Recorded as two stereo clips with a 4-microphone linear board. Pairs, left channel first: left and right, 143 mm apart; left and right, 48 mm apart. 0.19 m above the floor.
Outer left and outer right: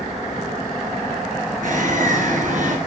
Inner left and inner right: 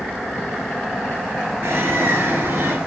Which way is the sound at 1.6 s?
60° right (ahead or behind).